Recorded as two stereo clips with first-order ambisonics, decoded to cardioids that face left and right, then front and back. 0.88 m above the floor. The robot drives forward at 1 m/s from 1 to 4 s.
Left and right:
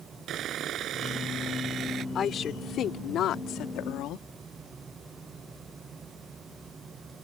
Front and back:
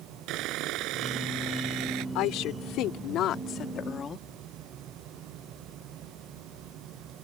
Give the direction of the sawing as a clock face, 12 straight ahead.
5 o'clock.